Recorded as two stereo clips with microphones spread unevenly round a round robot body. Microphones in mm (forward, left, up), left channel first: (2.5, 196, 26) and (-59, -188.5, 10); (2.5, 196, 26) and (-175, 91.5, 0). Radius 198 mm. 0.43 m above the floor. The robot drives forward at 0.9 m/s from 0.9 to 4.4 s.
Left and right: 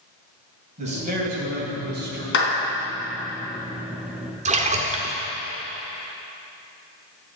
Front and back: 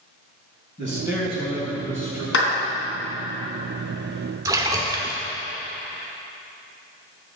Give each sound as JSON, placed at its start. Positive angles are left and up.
{"t": 0.8, "sound": "a man speaking", "azimuth_deg": -30, "distance_m": 3.0}
{"t": 2.3, "sound": "a clap", "azimuth_deg": 20, "distance_m": 3.5}
{"t": 4.5, "sound": "a splash", "azimuth_deg": -130, "distance_m": 1.2}